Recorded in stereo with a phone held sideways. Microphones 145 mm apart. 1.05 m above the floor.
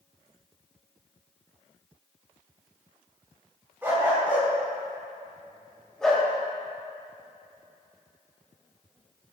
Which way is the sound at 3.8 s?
15° right (ahead or behind).